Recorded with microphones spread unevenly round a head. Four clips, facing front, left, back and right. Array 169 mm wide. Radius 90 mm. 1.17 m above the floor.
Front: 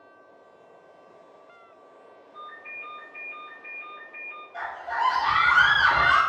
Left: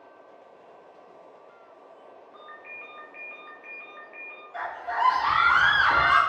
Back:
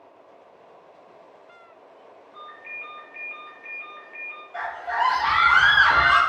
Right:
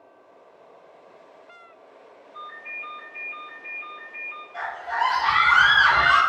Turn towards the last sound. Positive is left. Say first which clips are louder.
# right 2 dB, back 3 dB
turn(degrees=170)